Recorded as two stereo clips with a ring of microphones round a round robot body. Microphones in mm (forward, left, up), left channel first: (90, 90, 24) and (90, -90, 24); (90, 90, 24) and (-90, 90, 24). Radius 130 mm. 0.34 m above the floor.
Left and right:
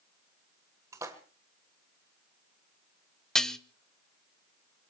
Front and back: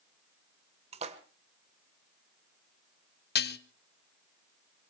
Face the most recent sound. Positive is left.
turn(degrees=5)